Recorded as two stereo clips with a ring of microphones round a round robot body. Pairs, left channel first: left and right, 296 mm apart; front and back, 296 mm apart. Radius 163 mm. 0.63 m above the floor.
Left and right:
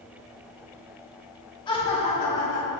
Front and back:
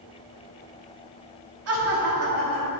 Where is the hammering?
I don't hear hammering.